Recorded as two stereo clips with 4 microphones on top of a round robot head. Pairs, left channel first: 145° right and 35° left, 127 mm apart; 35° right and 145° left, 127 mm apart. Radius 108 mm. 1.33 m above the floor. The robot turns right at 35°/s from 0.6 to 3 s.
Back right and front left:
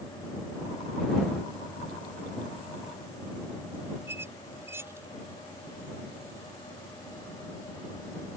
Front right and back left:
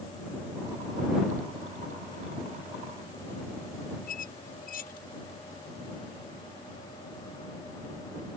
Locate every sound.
4.1 s a squeak: 40° right